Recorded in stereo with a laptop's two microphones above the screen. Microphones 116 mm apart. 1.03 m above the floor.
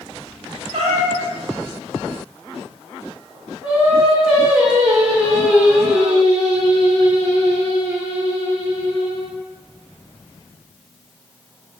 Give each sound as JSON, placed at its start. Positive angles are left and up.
{"t": 0.7, "sound": "a cat meowing", "side_deg": -65, "distance_m": 1.6}
{"t": 3.6, "sound": "singing", "side_deg": -10, "distance_m": 1.1}